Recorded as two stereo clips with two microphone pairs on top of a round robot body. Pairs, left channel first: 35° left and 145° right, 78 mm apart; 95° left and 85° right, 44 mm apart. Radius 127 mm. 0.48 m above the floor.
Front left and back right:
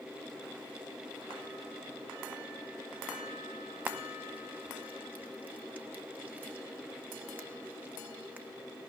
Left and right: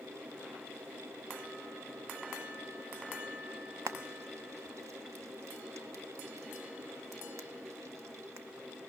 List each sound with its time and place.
3.9 s frying: 80° right, 0.6 m